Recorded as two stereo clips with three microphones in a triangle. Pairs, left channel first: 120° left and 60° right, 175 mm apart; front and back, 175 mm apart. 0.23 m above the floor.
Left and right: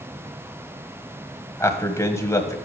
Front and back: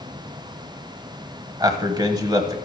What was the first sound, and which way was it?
A man speaking, 165° left.